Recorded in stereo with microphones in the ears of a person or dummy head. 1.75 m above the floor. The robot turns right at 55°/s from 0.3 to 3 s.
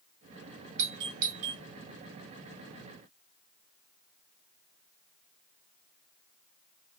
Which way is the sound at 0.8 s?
70° right (ahead or behind).